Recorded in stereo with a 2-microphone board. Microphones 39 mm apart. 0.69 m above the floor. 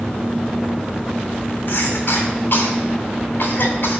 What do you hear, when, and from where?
1.7 s a cough: 65° left (ahead or behind), 2.5 m